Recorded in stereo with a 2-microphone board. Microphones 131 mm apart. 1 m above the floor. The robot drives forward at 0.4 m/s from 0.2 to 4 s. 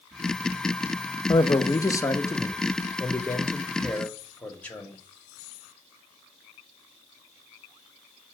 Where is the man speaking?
35° left (ahead or behind), 0.6 m; by 5.0 s 10° left (ahead or behind), 1.6 m.